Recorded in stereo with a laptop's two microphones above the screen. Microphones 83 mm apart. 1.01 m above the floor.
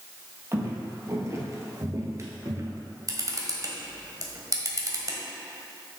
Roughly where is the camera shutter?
Right.